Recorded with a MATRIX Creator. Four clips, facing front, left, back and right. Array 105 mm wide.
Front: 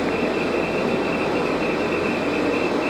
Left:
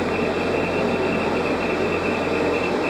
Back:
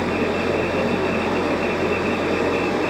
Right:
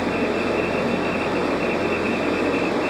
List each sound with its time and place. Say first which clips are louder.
0.0 s running water: even, even; straight behind, 4 m